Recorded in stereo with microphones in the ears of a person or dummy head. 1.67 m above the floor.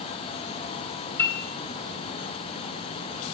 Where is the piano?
15° left (ahead or behind), 2 m.